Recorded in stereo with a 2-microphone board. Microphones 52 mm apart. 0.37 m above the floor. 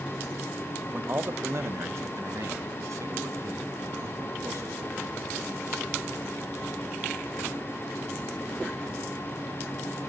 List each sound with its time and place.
0.9 s a man speaking: 40° right (ahead or behind), 1.0 m; by 5.2 s 70° right (ahead or behind), 4.5 m